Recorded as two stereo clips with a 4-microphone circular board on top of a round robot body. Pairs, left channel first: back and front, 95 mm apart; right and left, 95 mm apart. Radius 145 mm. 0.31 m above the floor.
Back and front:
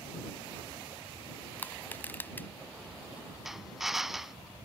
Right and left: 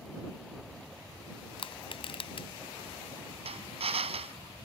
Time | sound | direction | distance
1.6 | crushing | 110° right | ?
3.5 | a drill | 85° left | ?